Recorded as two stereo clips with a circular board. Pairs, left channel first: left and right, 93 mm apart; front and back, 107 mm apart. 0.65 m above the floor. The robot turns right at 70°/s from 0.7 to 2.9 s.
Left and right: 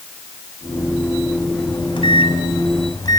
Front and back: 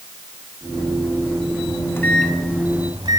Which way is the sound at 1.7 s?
45° left.